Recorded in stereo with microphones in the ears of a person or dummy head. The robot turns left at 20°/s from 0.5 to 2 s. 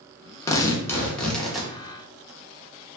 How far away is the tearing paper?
About 0.5 m.